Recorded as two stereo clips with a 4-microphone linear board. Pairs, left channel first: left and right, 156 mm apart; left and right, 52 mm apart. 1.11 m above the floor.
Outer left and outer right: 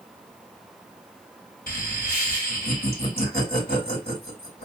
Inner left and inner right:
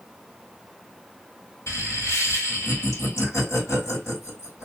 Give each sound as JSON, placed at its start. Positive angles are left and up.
{"t": 1.7, "sound": "laughter", "side_deg": 80, "distance_m": 3.0}